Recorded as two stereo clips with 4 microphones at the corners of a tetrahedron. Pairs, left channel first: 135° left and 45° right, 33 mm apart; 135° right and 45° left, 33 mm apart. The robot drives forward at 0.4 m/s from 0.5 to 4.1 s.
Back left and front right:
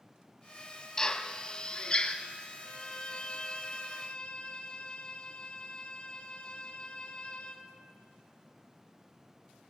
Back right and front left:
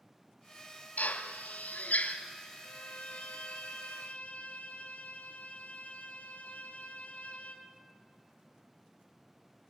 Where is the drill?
155° right, 1.2 m; by 2.1 s 160° right, 1.7 m.